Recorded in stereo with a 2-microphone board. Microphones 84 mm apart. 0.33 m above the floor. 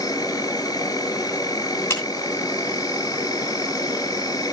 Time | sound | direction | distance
0.0 | an insect | 50° left (ahead or behind) | 1.3 m
1.9 | a clap | 40° left (ahead or behind) | 2.5 m